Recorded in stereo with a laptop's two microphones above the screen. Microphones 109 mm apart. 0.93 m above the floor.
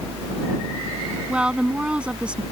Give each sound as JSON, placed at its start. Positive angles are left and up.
{"t": 0.0, "sound": "a fan", "side_deg": -20}
{"t": 1.3, "sound": "a woman speaking", "side_deg": -10}